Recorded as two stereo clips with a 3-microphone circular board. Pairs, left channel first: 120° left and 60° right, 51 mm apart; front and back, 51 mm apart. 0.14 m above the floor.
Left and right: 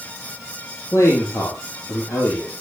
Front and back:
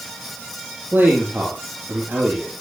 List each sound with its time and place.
0.9 s a man speaking: 120° left, 4.5 m